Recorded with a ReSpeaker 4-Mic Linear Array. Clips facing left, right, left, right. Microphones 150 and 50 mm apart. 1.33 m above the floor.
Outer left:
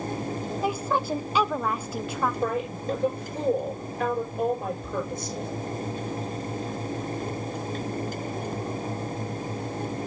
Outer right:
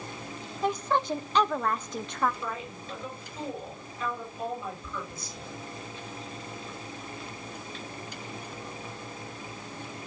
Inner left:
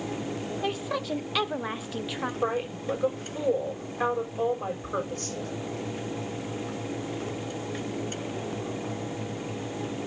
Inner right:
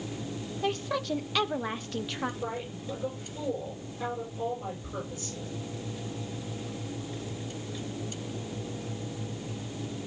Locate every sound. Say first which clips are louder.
0.6 s a woman speaking: even, inner right 2 dB; 5° left (ahead or behind), 0.7 m
2.4 s a woman speaking: outer left 10 dB, inner left 7 dB; 70° left (ahead or behind), 6 m